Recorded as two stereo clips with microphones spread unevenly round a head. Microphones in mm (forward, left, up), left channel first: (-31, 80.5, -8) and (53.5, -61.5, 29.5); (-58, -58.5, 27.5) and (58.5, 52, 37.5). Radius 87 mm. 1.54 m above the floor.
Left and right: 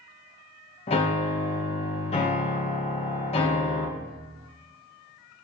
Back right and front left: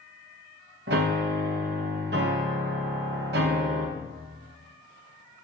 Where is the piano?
60° left, 1.0 m.